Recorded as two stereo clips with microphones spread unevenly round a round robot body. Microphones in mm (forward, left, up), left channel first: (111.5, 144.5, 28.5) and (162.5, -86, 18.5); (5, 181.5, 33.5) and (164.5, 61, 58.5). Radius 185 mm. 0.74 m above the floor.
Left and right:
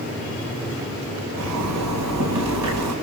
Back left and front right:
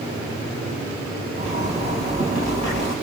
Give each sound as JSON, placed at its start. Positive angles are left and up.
{"t": 1.4, "sound": "a zipper", "azimuth_deg": -105, "distance_m": 4.0}